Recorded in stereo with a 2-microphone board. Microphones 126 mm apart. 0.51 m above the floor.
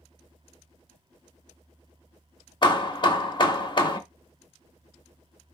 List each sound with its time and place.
2.6 s hammering: 40° left (ahead or behind), 0.9 m